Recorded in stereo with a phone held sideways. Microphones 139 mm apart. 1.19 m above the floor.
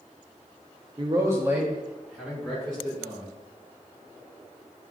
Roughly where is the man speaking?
Right.